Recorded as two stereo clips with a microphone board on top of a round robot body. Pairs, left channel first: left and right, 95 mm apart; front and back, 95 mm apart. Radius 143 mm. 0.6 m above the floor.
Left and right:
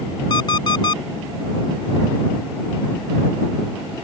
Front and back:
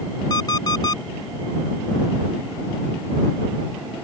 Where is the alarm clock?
50° left.